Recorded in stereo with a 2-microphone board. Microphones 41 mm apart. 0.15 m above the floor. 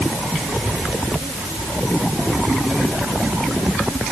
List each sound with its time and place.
Only background noise.